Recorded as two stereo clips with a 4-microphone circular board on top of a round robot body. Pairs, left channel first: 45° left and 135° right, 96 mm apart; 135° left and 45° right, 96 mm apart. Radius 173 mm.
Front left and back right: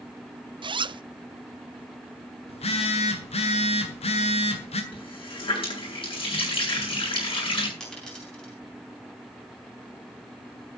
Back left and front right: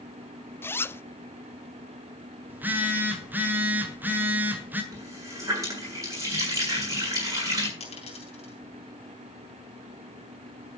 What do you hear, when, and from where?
0.6 s a zipper: 160° right, 0.6 m
2.5 s a phone buzzing: 25° left, 1.7 m
4.9 s a running tap: 15° left, 8.5 m
7.8 s a dropped coin: 130° left, 5.5 m